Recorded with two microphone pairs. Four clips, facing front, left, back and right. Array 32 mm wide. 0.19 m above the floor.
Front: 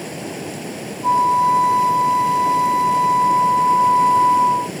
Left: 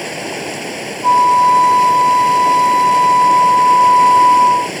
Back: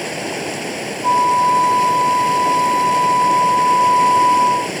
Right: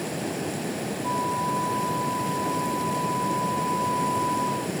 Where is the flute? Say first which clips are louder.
Left 18 dB, back 1 dB; 90° left.